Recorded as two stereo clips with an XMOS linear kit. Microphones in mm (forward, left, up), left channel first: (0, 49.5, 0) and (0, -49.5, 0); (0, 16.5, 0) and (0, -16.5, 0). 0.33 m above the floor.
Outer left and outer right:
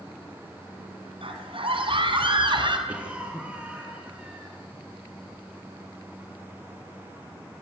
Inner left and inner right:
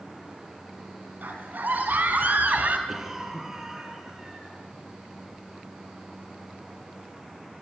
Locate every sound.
1.2 s a scream: 65° right (ahead or behind), 3.5 m; by 2.8 s 60° right (ahead or behind), 2.5 m
2.9 s a cough: 15° right (ahead or behind), 4 m